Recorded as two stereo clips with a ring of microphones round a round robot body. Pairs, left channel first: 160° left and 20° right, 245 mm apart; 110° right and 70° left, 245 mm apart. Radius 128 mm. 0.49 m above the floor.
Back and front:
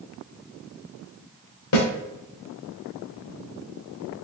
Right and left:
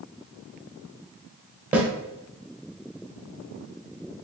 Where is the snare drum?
150° left, 1.0 m.